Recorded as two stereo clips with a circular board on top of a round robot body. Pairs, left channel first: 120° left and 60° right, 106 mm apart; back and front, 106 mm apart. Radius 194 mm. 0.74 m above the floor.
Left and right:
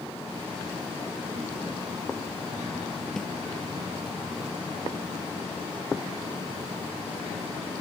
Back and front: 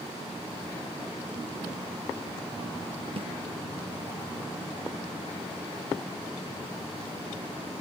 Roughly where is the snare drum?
Ahead left.